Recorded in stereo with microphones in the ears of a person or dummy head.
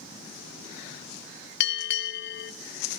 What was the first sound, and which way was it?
A bell, 65° left (ahead or behind).